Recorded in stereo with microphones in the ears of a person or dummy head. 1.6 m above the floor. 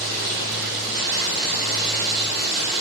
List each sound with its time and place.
0.0 s running water: 50° right (ahead or behind), 0.9 m